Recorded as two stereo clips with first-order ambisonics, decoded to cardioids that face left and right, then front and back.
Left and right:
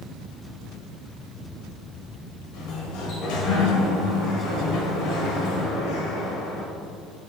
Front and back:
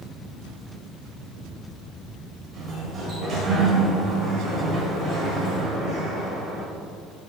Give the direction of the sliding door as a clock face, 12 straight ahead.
8 o'clock.